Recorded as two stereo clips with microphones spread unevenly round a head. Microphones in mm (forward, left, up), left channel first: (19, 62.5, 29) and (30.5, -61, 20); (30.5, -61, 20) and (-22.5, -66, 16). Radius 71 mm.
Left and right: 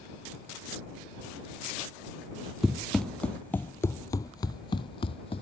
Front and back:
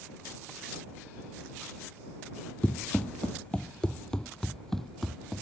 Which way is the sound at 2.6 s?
5° left.